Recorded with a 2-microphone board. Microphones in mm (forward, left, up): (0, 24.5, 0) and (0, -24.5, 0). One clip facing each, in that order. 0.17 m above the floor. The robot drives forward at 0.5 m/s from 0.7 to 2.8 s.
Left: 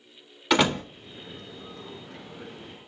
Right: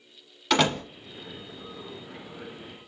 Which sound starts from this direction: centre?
A door slam, at 0.5 s.